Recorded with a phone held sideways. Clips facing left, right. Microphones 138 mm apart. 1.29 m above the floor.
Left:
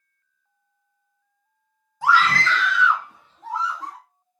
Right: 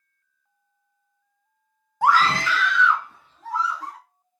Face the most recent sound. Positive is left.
turn(degrees=25)  # may be behind; listen again after turning